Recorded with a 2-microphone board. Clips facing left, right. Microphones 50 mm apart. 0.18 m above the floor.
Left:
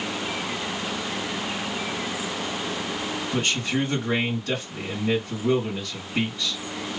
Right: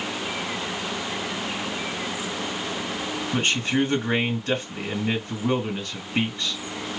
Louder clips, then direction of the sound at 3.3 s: Right 3 dB; 35° right (ahead or behind).